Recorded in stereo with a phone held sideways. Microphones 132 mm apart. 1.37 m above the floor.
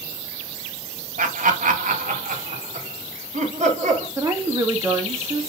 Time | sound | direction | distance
1.2 | laughter | 80° right | 1.7 m
4.2 | a woman speaking | 20° right (ahead or behind) | 2 m